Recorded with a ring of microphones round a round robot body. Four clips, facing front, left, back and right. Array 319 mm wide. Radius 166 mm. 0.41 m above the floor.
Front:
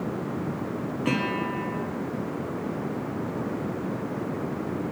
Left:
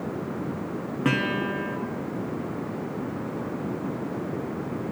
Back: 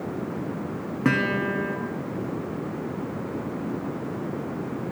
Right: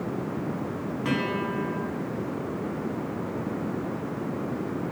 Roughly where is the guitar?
Behind left.